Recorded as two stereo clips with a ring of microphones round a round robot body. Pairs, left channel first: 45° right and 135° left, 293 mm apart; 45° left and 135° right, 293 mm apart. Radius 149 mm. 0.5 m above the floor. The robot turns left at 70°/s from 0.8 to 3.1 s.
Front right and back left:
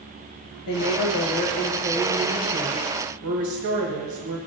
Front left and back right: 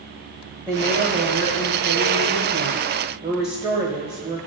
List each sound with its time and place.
0.7 s a woman speaking: 40° right, 1.6 m; by 4.4 s 160° left, 1.6 m